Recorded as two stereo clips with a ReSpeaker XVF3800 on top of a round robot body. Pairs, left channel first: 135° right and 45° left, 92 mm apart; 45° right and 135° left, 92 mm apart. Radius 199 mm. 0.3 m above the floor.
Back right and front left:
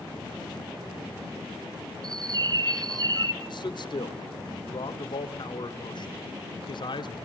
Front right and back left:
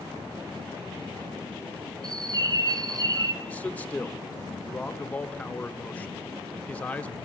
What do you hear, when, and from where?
2.0 s a bird: 90° left, 1.1 m
3.4 s a man speaking: 115° right, 2.5 m